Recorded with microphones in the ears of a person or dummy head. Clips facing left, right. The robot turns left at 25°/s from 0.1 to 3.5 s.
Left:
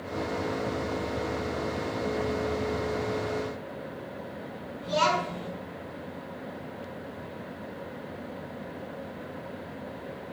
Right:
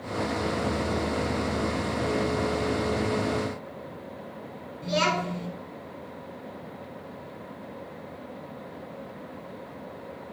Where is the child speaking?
35° right (ahead or behind), 3 m.